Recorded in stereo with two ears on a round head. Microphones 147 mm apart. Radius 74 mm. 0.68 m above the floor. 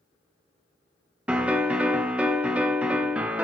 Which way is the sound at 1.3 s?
10° right (ahead or behind).